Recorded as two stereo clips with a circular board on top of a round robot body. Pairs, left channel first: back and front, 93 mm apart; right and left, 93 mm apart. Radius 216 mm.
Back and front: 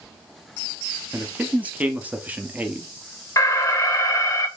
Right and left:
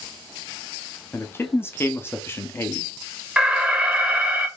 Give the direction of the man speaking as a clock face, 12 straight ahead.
2 o'clock.